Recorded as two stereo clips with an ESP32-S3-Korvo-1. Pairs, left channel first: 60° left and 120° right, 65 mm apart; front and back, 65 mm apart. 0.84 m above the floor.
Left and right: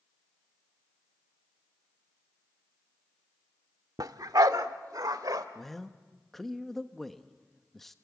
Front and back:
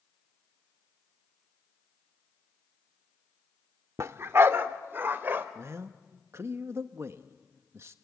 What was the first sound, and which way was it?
A dog barking, 135° right.